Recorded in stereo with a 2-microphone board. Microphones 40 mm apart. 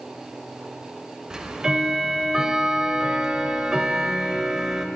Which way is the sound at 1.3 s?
15° right (ahead or behind).